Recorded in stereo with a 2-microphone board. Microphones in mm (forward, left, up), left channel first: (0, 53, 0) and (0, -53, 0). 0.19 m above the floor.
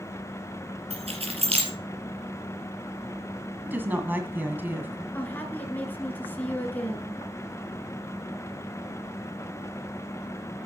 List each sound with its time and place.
0.9 s keys jangling: 70° right (ahead or behind), 3.5 m
3.6 s a woman speaking: 20° right (ahead or behind), 1.7 m
5.1 s a woman speaking: 15° left (ahead or behind), 2.5 m